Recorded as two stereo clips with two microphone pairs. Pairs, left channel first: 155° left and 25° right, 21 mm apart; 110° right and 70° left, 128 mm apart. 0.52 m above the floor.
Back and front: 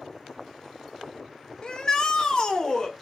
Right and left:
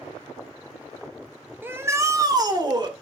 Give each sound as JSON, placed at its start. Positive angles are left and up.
{"t": 1.6, "sound": "a shout", "azimuth_deg": 135, "distance_m": 1.8}